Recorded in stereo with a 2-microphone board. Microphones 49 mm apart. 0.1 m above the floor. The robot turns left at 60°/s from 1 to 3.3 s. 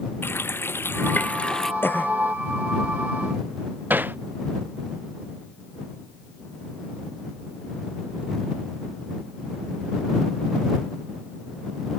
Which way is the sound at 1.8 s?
45° left (ahead or behind).